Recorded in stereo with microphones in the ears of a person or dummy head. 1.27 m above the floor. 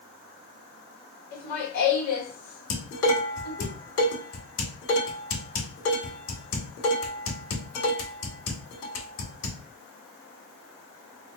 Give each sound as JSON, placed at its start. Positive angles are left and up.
{"t": 1.3, "sound": "laughter", "side_deg": 50, "distance_m": 1.4}
{"t": 2.7, "sound": "dishes clattering", "side_deg": 75, "distance_m": 2.0}